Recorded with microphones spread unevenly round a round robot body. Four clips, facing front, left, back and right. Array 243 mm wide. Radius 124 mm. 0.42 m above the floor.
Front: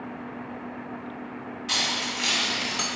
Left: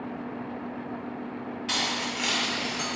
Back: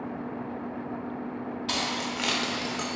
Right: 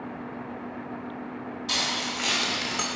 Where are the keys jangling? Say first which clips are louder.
Even, front 1 dB; 170° left, 0.9 m; by 2.9 s 90° right, 0.6 m.